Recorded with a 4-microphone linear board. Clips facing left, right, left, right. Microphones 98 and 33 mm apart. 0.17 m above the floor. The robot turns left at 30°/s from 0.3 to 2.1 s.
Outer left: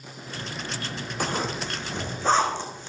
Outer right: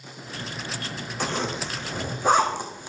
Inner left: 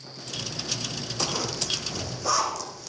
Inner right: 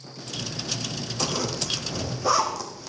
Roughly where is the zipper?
Centre.